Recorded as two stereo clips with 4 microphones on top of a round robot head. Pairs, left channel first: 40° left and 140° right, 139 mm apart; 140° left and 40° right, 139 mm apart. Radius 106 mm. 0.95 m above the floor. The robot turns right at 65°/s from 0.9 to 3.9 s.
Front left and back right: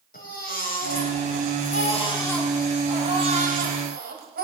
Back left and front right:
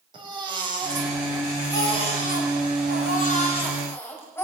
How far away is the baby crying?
About 5 m.